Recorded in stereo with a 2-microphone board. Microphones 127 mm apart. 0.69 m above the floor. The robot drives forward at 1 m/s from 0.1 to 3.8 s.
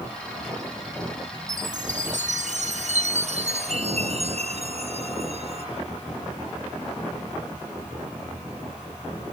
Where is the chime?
80° right; by 5.7 s 60° right (ahead or behind).